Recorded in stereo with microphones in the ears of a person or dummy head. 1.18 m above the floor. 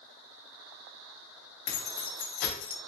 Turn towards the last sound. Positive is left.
turn(degrees=50)  # may be behind; listen again after turning